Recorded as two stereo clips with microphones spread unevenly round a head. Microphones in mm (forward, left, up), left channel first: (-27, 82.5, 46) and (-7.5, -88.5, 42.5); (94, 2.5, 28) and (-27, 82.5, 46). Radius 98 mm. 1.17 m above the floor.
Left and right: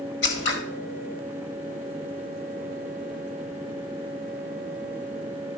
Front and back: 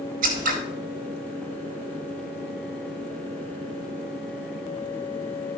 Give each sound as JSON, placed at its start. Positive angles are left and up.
{"t": 0.2, "sound": "scissors", "azimuth_deg": 120, "distance_m": 1.7}